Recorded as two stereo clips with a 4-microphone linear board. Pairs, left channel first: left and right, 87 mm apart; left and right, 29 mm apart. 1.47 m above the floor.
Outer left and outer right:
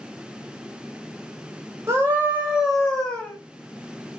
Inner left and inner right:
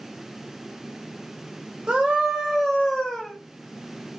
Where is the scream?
30° right (ahead or behind), 1.1 m; by 3.3 s 15° left (ahead or behind), 1.3 m.